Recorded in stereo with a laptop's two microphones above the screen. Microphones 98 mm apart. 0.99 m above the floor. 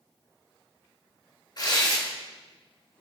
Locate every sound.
1.6 s tearing paper: 45° left (ahead or behind), 3 m